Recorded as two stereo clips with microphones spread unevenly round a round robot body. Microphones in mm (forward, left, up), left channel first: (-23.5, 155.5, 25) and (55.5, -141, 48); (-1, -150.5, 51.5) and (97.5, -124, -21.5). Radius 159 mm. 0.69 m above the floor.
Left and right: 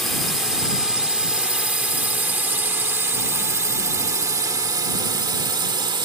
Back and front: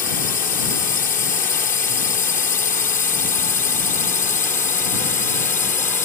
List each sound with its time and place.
0.0 s a drone: 165° right; by 6.0 s 150° right